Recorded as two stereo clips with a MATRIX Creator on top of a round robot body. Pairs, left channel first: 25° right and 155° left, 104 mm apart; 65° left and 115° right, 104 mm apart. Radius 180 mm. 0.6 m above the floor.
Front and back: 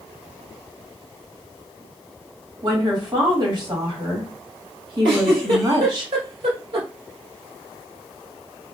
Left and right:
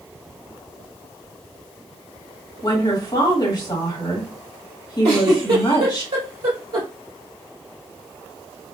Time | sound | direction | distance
2.6 | a woman speaking | 110° left | 2.0 m
5.0 | a giggle | 160° right | 1.1 m